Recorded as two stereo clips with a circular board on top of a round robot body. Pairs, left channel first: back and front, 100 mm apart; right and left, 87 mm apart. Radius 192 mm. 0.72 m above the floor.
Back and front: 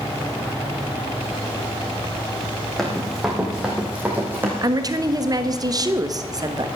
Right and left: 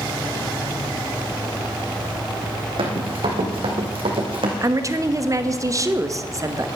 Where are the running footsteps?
90° left, 2.5 m; by 4.5 s 70° left, 2.5 m.